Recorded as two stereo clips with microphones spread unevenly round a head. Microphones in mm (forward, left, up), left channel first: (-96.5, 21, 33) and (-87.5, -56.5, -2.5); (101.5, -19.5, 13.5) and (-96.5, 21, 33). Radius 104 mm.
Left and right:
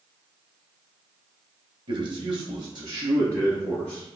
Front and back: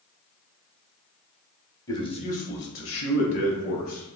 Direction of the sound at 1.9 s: 85° right.